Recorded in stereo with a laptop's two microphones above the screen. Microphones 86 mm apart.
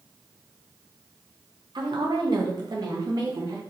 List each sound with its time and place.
1.8 s a woman speaking: 60° right (ahead or behind), 0.6 m; by 3.6 s 45° right (ahead or behind), 1.4 m